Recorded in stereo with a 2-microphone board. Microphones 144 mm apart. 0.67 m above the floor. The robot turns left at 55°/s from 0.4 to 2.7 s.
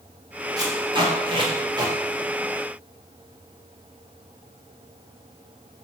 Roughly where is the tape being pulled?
Right.